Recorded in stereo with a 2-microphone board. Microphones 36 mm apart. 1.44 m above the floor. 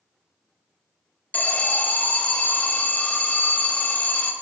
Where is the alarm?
40° left (ahead or behind), 0.5 m.